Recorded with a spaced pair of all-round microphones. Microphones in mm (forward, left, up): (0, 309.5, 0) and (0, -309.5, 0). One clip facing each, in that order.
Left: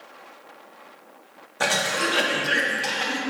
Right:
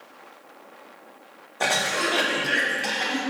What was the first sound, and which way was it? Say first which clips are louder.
A cough: left 1 dB; 45° left (ahead or behind).